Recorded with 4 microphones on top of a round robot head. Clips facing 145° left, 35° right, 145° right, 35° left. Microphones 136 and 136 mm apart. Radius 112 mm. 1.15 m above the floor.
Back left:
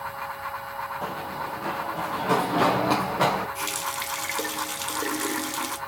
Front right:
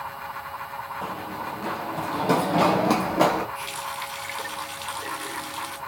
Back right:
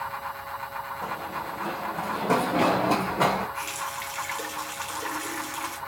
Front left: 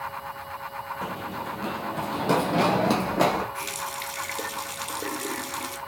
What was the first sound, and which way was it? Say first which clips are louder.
Running footsteps: front right 1 dB, front left 1 dB; 50° left.